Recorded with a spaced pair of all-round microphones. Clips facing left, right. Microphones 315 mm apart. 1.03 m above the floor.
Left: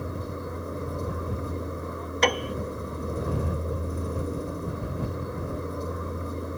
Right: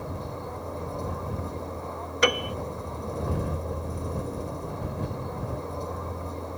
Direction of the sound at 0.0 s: 20° left (ahead or behind).